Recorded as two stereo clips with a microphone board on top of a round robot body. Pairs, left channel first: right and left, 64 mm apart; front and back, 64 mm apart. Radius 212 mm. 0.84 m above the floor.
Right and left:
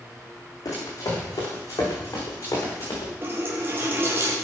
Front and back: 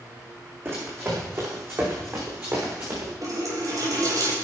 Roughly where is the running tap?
Behind left.